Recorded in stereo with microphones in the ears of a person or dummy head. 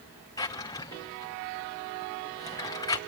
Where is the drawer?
25° left (ahead or behind), 1.0 m.